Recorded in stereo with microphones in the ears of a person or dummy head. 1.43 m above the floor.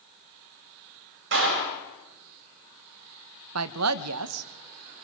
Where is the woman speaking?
75° right (ahead or behind), 1.1 m.